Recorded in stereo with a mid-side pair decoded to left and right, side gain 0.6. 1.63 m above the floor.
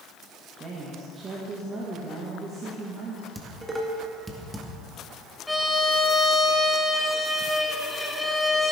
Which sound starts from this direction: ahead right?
A woman speaking, at 0.6 s.